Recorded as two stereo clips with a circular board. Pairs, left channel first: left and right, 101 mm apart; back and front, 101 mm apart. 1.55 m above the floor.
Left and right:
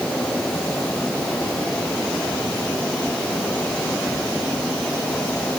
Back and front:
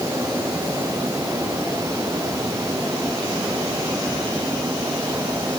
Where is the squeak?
No squeak in this recording.